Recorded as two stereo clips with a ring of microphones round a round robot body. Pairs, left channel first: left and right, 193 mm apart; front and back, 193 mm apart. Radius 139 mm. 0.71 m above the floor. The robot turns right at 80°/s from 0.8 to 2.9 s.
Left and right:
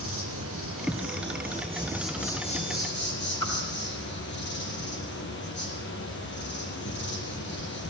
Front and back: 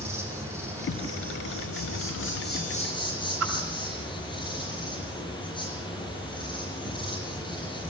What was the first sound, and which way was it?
An insect, 105° right.